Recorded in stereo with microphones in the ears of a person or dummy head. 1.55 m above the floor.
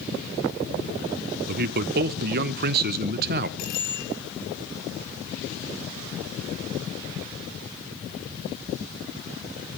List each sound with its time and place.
1.5 s a man speaking: 50° right (ahead or behind), 0.9 m
3.6 s a bicycle bell: 55° left (ahead or behind), 8.5 m